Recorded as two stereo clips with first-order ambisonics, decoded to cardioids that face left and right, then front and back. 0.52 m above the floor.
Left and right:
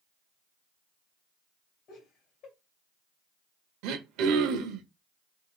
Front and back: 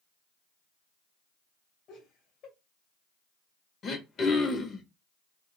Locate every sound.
1.9 s laughter: 45° left, 2.0 m
3.8 s throat clearing: 65° right, 0.6 m